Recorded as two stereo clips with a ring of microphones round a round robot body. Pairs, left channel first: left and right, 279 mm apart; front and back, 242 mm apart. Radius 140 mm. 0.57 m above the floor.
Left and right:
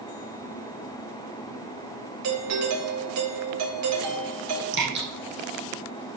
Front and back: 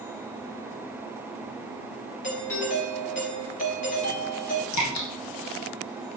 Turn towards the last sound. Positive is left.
turn(degrees=-35)